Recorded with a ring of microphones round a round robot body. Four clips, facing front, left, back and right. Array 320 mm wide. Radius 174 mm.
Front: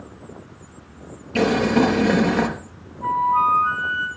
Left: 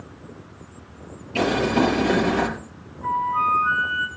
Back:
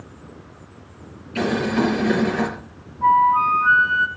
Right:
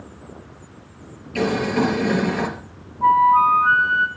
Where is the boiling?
5° left, 5 m.